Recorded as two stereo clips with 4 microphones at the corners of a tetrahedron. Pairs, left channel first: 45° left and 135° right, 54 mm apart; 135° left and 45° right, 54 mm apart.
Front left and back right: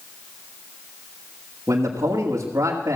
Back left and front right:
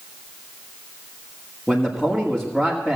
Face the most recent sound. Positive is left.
turn(degrees=-140)